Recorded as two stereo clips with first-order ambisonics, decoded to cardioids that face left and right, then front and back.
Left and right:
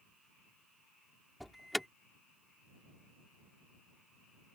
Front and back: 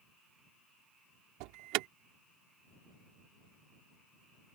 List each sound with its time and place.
1.4 s an alarm: straight behind